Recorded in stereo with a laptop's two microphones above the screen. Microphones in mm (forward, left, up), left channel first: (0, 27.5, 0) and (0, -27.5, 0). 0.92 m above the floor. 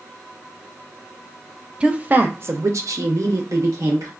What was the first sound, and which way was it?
A woman speaking, 20° right (ahead or behind).